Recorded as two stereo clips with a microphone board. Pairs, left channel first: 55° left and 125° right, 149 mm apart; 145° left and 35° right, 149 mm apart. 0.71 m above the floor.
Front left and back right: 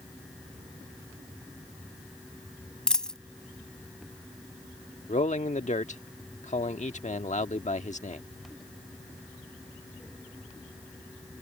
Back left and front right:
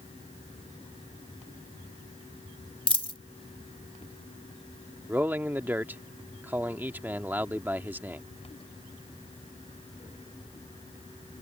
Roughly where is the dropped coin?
Behind left.